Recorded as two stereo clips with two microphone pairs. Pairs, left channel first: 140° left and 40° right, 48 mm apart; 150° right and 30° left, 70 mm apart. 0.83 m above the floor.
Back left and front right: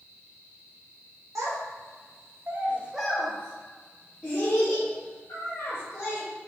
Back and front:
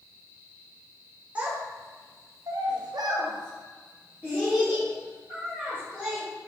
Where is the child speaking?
40° right, 1.1 m; by 6.2 s 105° left, 2.5 m.